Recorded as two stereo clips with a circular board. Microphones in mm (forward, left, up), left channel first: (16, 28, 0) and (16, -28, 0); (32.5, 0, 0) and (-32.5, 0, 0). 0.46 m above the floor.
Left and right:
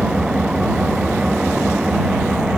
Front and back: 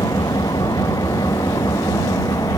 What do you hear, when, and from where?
0.0 s an engine running: 15° right